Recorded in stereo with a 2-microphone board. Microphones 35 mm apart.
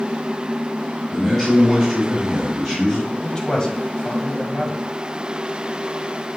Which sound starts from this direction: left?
A man speaking, at 3.1 s.